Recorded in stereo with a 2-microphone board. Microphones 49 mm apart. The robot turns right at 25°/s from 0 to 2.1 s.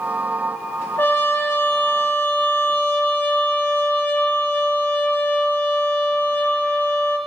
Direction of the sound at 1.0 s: 45° left (ahead or behind).